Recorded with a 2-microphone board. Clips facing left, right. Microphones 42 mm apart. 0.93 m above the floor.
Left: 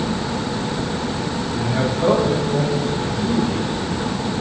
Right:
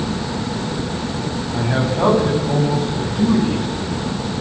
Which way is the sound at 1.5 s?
70° right (ahead or behind).